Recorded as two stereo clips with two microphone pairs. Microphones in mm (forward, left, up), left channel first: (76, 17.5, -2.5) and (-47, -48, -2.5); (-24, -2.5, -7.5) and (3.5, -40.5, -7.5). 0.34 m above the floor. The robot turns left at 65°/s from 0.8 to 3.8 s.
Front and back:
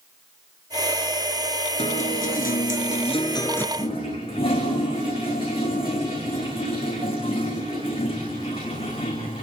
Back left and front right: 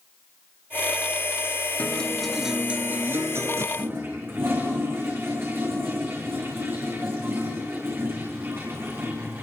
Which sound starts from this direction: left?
A guitar, at 1.8 s.